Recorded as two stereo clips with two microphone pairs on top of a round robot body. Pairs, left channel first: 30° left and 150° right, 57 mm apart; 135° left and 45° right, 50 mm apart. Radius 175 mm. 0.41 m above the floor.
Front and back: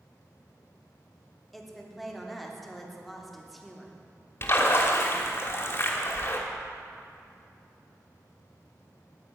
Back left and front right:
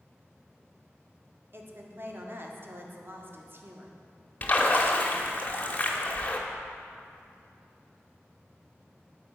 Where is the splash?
80° left, 1.2 m.